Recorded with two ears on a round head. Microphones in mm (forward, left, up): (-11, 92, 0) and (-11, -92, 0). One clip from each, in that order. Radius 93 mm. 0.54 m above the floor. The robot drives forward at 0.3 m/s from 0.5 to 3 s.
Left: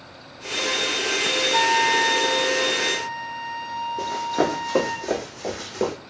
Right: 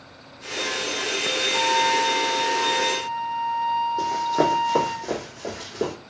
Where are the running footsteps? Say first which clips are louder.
Right 2 dB; 25° right (ahead or behind), 1.0 m; by 5.9 s 20° left (ahead or behind), 1.6 m.